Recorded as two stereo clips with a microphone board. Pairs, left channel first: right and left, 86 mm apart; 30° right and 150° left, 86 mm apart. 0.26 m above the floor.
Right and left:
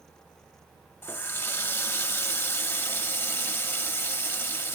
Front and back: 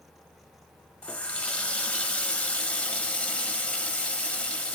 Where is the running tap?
80° right, 0.6 m.